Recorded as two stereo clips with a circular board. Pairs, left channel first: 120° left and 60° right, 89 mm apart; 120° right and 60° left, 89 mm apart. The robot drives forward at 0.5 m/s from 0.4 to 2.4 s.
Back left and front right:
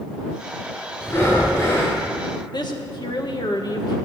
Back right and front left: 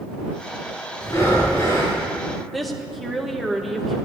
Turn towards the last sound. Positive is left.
turn(degrees=150)